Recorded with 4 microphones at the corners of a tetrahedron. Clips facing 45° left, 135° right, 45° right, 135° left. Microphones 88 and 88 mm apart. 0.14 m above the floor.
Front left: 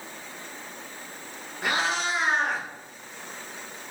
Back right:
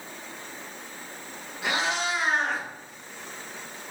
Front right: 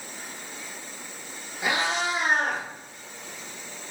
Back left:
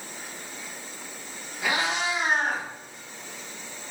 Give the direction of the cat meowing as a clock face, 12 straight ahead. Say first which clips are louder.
Front left 1 dB, front right 1 dB; 11 o'clock.